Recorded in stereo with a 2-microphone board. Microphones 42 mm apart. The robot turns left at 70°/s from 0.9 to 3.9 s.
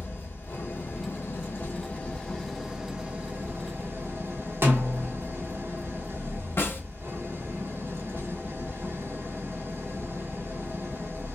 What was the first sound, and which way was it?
An engine running, 115° left.